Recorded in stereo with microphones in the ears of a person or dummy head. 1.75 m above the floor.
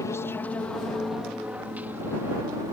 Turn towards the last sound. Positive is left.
turn(degrees=-15)  # may be behind; listen again after turning